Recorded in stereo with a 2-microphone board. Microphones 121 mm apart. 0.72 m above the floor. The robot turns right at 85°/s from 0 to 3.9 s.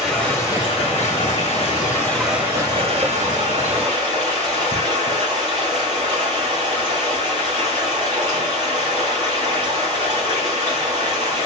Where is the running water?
10° right, 2.5 m; by 11.5 s 40° right, 2.5 m.